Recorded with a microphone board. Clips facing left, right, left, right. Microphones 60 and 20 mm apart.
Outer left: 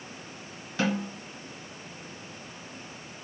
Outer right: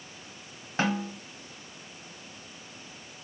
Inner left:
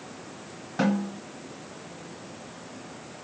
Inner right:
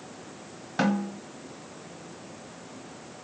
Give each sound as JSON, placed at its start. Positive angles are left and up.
{"t": 0.8, "sound": "a snare drum", "side_deg": -35, "distance_m": 1.4}